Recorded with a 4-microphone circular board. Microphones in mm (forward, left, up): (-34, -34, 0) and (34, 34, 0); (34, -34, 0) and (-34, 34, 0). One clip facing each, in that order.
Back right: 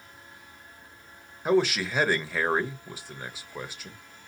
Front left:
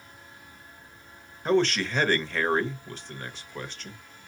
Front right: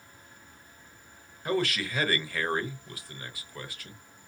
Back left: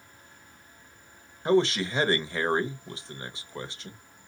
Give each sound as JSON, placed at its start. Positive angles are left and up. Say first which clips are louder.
{"t": 1.4, "sound": "a man speaking", "louder": "even, back left 6 dB", "azimuth_deg": 155, "distance_m": 0.9}